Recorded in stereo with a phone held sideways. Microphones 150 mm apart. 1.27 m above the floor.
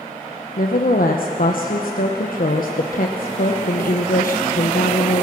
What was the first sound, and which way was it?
A woman speaking, 70° left (ahead or behind).